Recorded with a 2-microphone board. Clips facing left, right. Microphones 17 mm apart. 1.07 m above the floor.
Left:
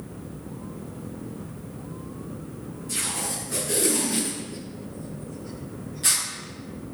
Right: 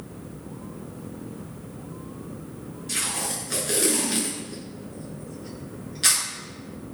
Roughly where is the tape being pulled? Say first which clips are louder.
Right 1 dB; right.